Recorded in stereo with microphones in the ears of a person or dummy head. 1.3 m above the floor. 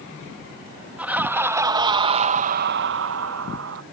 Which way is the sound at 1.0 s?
10° right (ahead or behind).